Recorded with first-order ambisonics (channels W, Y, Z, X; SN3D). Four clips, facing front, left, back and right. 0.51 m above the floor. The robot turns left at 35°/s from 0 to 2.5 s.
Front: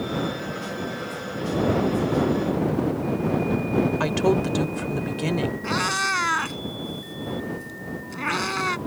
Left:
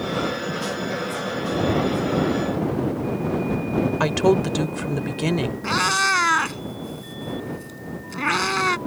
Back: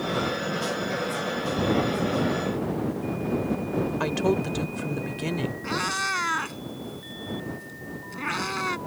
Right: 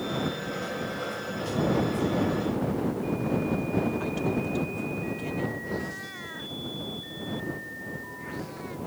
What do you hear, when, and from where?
4.0 s a woman speaking: 75° left
5.6 s a cat meowing: 80° left